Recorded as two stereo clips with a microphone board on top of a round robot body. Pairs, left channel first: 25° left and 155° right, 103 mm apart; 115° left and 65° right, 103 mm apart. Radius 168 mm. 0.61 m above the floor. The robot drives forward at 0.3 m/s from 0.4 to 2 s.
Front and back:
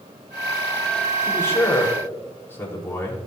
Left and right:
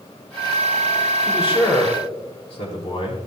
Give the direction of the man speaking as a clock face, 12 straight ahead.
9 o'clock.